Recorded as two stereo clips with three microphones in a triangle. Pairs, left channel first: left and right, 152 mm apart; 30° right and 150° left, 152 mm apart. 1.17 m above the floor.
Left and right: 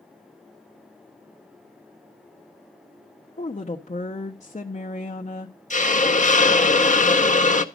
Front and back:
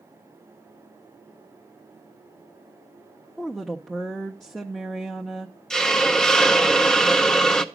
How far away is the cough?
No cough in this recording.